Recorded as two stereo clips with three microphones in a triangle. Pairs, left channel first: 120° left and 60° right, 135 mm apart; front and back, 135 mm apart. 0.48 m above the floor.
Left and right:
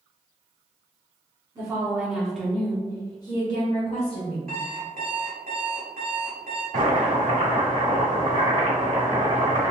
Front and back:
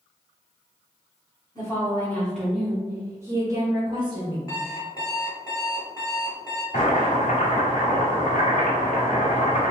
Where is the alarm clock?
60° right, 1.3 m.